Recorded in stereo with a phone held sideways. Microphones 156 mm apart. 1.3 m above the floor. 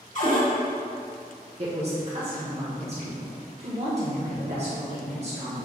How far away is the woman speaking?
About 1.1 m.